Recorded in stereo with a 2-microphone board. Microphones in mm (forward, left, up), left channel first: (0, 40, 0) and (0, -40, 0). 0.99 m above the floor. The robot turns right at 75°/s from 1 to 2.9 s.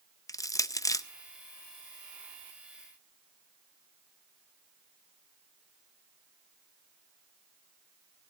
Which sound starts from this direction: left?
Crushing, at 0.3 s.